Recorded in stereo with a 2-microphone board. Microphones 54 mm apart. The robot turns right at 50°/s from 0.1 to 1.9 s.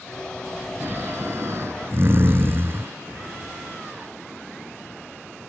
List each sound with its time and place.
0.8 s snoring: 120° right; by 2.9 s 65° right